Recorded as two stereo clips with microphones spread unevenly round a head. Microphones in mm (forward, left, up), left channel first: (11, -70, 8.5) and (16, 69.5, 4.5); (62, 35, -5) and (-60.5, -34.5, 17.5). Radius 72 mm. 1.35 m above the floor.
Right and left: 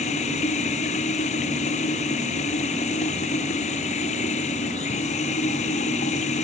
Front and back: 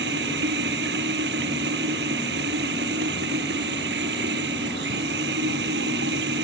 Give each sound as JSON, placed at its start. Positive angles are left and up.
{"t": 0.0, "sound": "running water", "azimuth_deg": -140}